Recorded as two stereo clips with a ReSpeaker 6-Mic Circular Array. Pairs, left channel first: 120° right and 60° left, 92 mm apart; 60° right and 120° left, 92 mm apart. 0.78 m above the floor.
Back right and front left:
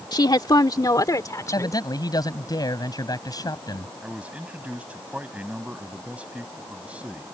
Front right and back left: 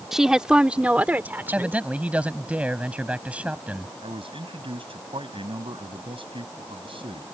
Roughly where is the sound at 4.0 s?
Behind left.